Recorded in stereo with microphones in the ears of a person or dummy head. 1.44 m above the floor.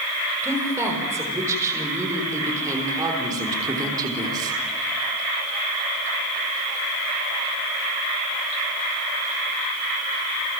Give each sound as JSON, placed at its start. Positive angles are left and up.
{"t": 0.4, "sound": "a woman speaking", "side_deg": -15, "distance_m": 6.5}